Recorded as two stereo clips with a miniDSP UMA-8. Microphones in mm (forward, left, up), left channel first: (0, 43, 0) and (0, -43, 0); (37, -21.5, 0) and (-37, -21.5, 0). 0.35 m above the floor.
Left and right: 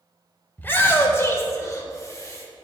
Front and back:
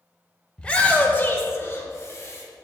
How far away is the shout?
About 0.9 m.